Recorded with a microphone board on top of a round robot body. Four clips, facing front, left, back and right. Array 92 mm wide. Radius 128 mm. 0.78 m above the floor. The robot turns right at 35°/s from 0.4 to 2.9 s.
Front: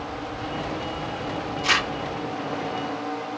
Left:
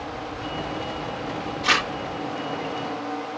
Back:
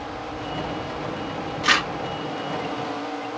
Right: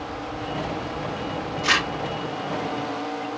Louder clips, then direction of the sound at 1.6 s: Even, back 3 dB; 170° right.